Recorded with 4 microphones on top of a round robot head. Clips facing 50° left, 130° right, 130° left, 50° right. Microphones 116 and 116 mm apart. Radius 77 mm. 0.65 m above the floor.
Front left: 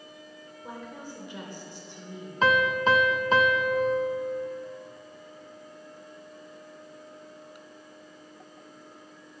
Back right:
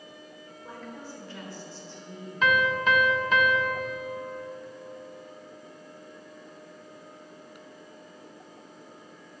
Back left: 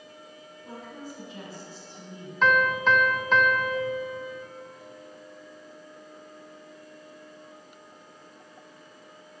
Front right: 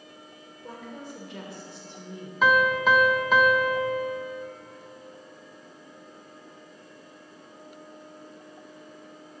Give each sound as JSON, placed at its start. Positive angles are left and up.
{"t": 0.6, "sound": "a woman speaking", "azimuth_deg": -25, "distance_m": 3.0}
{"t": 2.4, "sound": "a piano", "azimuth_deg": 25, "distance_m": 1.0}